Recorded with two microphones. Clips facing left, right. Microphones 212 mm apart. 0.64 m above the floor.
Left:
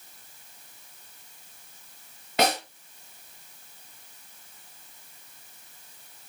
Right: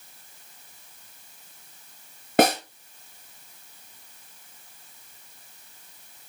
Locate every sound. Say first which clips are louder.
2.4 s a snare drum: right 6 dB; 50° right (ahead or behind), 4 m